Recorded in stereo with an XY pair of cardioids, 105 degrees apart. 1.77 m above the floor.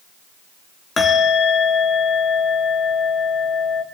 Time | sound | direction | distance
1.0 | a bell | 30° left | 3.5 m